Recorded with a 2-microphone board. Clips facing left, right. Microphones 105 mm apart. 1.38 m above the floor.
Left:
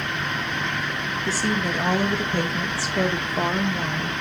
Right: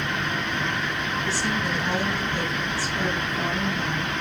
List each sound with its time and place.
1.2 s a woman speaking: 40° left (ahead or behind), 2.5 m; by 4.1 s 70° left (ahead or behind), 2.5 m